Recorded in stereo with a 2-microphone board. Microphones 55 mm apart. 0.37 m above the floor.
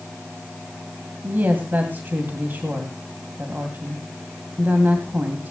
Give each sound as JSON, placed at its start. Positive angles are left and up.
{"t": 1.2, "sound": "a woman speaking", "side_deg": -35, "distance_m": 2.5}